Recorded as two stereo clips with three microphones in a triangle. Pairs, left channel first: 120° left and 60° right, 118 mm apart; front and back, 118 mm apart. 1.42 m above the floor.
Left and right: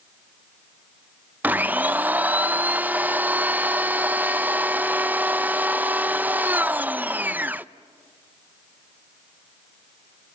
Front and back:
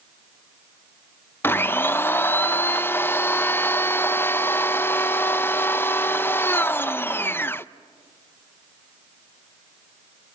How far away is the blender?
About 0.5 m.